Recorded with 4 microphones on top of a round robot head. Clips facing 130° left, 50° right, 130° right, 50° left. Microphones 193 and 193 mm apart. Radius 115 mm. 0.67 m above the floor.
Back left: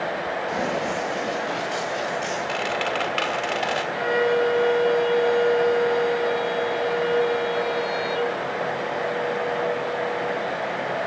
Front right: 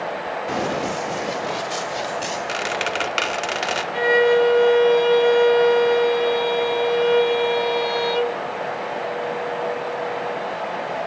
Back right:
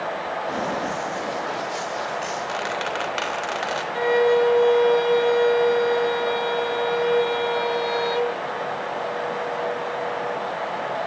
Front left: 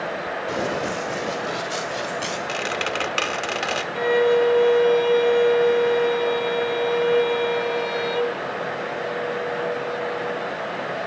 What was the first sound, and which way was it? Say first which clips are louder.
Running footsteps: front right 3 dB, front left 2 dB; 20° right.